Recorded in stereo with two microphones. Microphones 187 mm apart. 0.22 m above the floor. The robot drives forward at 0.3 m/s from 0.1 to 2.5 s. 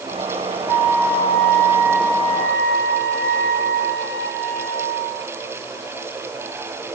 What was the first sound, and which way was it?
A flute, 15° left (ahead or behind).